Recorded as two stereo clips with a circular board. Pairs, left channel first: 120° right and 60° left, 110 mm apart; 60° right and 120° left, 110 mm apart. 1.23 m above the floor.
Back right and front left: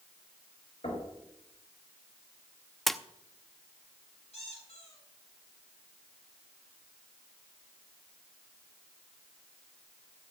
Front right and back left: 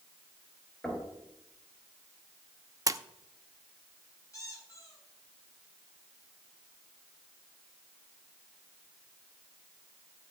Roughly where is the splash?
Behind left.